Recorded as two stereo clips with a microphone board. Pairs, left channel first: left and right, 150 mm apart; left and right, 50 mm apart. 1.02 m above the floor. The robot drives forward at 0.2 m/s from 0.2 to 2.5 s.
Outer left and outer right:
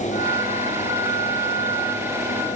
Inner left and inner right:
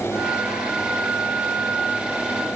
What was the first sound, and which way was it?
Only background noise.